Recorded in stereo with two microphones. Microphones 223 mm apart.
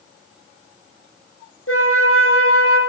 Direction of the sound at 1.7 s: 85° left.